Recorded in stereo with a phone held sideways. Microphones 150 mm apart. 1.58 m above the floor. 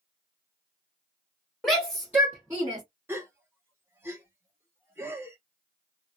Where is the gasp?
15° right (ahead or behind), 1.0 m.